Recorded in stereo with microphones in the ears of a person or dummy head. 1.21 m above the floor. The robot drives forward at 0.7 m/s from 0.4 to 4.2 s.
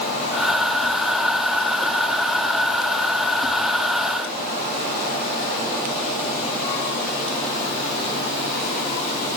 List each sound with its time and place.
Only background noise.